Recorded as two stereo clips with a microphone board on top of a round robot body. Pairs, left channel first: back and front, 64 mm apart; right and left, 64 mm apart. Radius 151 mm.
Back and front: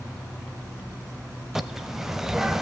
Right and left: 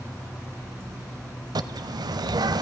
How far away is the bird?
About 0.5 m.